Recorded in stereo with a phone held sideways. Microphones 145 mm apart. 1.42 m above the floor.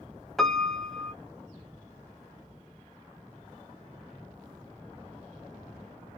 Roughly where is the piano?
Centre.